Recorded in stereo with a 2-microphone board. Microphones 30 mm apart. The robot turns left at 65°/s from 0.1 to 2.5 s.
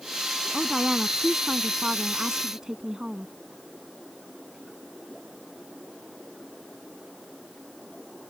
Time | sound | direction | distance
0.5 | a woman speaking | 5° left (ahead or behind) | ?